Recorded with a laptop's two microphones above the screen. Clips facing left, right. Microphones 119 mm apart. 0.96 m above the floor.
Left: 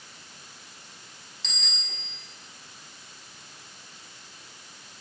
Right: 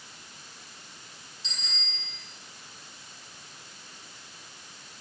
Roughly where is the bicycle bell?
Left.